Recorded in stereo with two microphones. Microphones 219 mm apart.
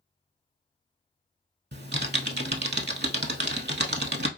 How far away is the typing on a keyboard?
About 0.5 m.